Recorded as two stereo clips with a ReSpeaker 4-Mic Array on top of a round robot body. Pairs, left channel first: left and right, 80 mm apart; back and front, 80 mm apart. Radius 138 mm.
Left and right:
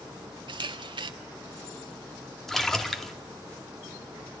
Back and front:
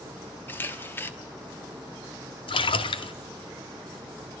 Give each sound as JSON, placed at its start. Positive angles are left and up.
{"t": 0.5, "sound": "a camera shutter", "azimuth_deg": -115, "distance_m": 1.5}
{"t": 2.5, "sound": "a splash", "azimuth_deg": 175, "distance_m": 2.0}